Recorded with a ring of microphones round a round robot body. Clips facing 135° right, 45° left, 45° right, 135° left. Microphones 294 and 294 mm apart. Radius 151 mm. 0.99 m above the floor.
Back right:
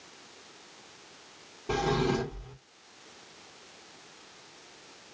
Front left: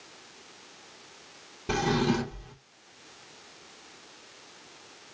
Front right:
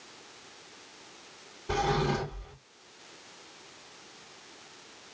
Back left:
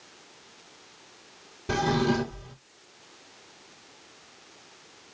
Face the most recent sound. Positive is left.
turn(degrees=100)